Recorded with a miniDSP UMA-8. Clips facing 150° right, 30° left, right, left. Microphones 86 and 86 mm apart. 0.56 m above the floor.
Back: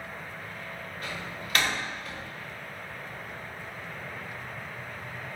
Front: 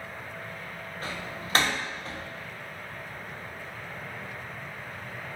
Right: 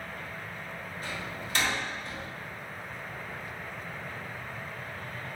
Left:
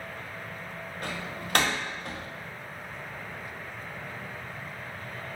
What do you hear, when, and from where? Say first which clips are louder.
1.0 s a door slam: front 2 dB, left 3 dB; 85° left, 0.6 m